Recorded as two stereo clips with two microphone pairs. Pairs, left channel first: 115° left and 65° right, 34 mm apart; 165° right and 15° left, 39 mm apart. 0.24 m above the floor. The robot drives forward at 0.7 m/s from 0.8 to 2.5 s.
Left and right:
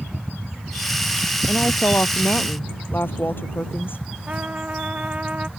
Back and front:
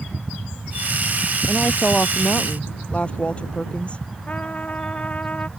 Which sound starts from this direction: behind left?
A woman speaking, at 1.5 s.